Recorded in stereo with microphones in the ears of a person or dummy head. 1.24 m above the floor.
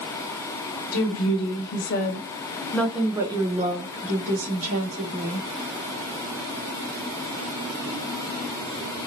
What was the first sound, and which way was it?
A woman speaking, 75° left (ahead or behind).